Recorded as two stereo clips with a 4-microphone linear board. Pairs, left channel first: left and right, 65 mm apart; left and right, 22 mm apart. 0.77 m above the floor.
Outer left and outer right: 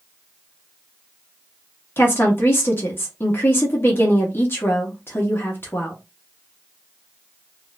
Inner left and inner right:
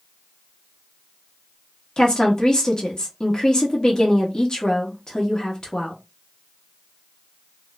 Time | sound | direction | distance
2.0 | a woman speaking | 35° left (ahead or behind) | 1.1 m